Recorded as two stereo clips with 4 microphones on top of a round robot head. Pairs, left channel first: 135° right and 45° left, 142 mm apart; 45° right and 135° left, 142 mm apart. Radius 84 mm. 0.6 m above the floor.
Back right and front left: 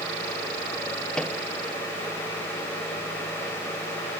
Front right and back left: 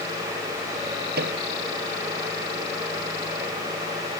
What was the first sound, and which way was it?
A microwave, 140° left.